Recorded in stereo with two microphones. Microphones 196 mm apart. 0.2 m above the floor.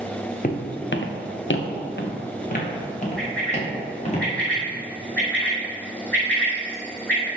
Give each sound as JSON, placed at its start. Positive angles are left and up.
{"t": 0.4, "sound": "footsteps", "side_deg": 45, "distance_m": 1.5}
{"t": 3.2, "sound": "a bird", "side_deg": 5, "distance_m": 3.0}